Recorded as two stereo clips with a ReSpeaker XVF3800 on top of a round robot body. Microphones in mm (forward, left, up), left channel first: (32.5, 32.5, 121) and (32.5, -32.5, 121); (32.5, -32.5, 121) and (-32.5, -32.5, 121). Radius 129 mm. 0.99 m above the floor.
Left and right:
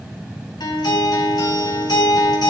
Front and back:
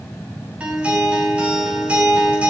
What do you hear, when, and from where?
0.6 s a guitar: 105° left, 6.5 m